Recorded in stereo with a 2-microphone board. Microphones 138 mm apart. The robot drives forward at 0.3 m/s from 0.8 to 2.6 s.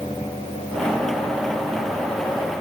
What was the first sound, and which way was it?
Only background noise.